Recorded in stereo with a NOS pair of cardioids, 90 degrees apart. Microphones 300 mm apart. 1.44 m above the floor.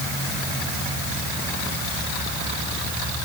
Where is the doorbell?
No doorbell in this recording.